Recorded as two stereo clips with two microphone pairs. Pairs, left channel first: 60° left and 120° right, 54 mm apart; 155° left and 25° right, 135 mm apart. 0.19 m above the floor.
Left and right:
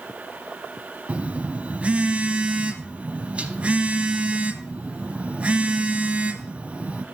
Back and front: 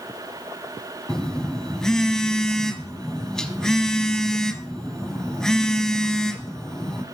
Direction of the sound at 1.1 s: 120° right.